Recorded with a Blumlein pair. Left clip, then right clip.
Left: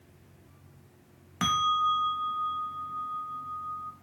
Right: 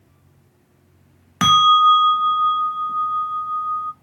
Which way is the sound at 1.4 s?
60° right.